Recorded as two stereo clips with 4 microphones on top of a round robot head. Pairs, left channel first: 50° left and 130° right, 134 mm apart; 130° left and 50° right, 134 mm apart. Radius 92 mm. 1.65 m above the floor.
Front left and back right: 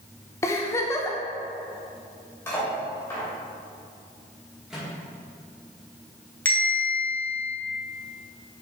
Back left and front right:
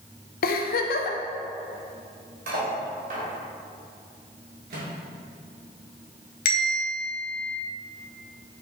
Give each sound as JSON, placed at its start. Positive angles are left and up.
{"t": 0.4, "sound": "a giggle", "azimuth_deg": 120, "distance_m": 0.6}
{"t": 2.5, "sound": "cutlery clinking", "azimuth_deg": -25, "distance_m": 2.5}
{"t": 4.7, "sound": "a microwave", "azimuth_deg": -45, "distance_m": 2.0}
{"t": 6.5, "sound": "a bell", "azimuth_deg": 125, "distance_m": 1.6}